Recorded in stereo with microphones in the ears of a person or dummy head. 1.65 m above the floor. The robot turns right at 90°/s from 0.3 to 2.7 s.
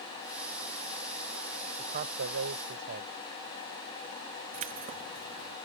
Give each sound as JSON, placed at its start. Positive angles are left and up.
{"t": 1.8, "sound": "a man speaking", "azimuth_deg": -145}
{"t": 4.5, "sound": "keys jangling", "side_deg": -40}